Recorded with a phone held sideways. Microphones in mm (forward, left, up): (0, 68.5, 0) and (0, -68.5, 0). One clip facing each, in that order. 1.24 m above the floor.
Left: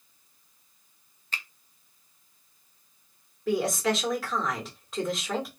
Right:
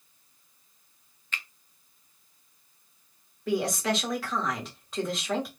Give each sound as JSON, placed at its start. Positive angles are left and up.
{"t": 1.3, "sound": "a finger snap", "side_deg": 35, "distance_m": 0.5}
{"t": 3.5, "sound": "a woman speaking", "side_deg": 0, "distance_m": 1.4}